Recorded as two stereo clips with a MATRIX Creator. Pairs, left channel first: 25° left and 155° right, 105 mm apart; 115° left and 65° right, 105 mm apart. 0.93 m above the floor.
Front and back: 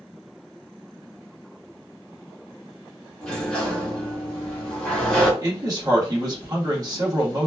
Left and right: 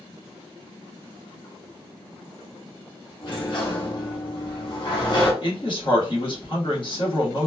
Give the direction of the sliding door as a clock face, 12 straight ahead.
8 o'clock.